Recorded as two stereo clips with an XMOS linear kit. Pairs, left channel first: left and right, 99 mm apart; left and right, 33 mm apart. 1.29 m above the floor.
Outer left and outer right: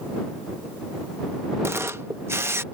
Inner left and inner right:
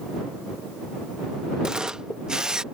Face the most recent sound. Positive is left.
turn(degrees=-25)  # may be behind; listen again after turning